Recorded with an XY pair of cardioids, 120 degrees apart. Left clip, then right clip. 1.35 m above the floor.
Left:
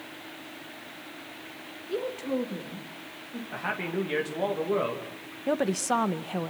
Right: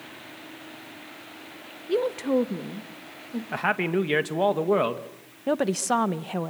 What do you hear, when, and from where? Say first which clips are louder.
1.9 s a woman speaking: right 7 dB; 45° right, 1.6 m; by 3.4 s 40° right, 2.5 m
3.5 s a man speaking: right 7 dB; 45° right, 2 m
5.5 s a woman speaking: right 2 dB; 15° right, 1.0 m